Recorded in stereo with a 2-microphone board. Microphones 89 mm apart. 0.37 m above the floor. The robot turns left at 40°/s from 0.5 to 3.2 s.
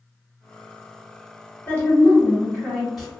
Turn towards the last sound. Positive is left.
turn(degrees=-10)